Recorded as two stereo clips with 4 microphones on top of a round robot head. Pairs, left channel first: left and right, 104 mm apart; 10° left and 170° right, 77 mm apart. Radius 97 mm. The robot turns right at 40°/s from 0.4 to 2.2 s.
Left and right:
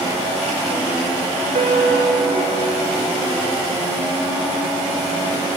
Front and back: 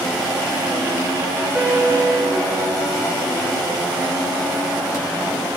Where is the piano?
100° right, 2 m; by 3.7 s 75° right, 2 m.